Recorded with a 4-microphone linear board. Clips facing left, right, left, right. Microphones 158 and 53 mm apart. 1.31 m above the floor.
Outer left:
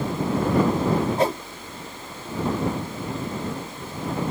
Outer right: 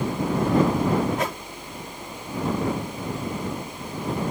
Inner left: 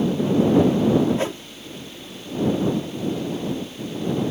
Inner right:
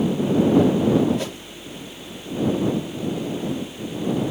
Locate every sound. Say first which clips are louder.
1.2 s a whoosh: outer left 6 dB, inner left 4 dB; 35° left (ahead or behind)